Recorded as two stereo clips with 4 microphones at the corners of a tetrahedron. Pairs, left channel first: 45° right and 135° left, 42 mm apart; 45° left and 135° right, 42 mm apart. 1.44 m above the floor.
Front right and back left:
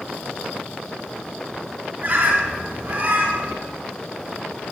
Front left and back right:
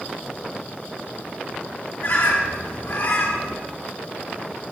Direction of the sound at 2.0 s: 80° left.